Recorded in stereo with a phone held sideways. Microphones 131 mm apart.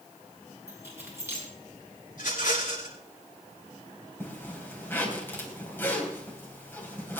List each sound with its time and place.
0.7 s keys jangling: 20° right (ahead or behind), 6 m
2.1 s a rattle: 85° left, 8.5 m
4.2 s a zipper: 15° left (ahead or behind), 3 m